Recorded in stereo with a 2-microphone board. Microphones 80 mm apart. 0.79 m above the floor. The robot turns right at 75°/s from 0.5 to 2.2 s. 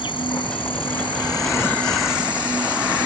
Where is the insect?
65° left; by 3.1 s 165° right.